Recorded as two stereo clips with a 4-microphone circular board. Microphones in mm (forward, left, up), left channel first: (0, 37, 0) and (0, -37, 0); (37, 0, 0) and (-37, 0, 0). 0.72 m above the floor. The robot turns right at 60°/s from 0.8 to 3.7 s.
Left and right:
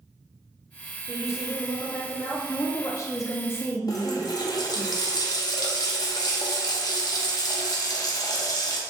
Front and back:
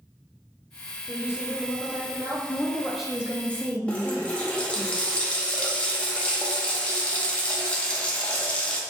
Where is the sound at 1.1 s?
35° left, 1.3 m; by 2.4 s 115° left, 1.3 m.